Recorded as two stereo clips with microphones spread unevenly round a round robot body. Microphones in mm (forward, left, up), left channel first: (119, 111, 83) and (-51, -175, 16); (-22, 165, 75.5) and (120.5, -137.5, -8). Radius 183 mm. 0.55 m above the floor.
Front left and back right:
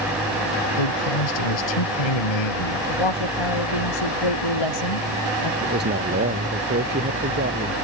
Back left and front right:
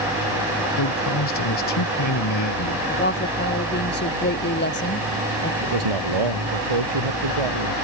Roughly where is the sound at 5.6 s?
Ahead right.